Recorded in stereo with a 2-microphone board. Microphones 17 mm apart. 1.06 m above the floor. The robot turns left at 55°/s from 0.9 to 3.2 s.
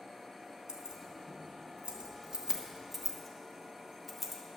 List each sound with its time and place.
0.7 s keys jangling: 50° right (ahead or behind), 1.3 m; by 4.4 s 5° right (ahead or behind), 1.3 m